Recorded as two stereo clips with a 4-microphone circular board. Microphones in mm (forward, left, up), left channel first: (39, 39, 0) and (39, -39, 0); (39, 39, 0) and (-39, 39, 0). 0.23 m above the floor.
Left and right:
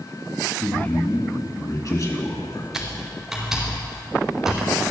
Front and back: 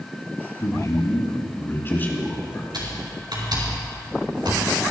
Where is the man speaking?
25° left, 2.5 m; by 2.6 s 70° left, 3 m.